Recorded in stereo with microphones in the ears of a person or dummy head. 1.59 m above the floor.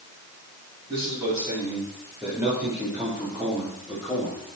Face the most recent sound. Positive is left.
turn(degrees=-5)  # may be behind; listen again after turning